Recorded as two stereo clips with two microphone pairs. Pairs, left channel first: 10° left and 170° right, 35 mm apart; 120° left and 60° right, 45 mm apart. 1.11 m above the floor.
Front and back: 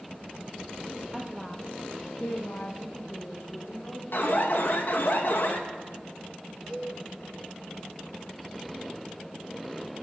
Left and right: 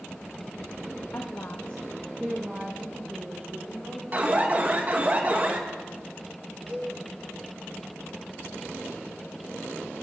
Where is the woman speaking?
105° left, 1.3 m; by 4.0 s 20° right, 3.5 m.